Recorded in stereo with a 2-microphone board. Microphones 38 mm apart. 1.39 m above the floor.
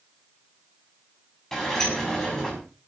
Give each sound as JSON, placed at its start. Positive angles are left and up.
{"t": 1.5, "sound": "a sliding door", "side_deg": 10, "distance_m": 6.0}